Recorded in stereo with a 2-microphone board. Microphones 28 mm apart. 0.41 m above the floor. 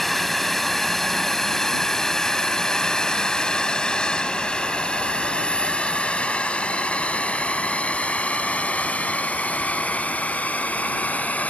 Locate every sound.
0.0 s a drone: 5° left (ahead or behind); by 11.5 s 65° left (ahead or behind)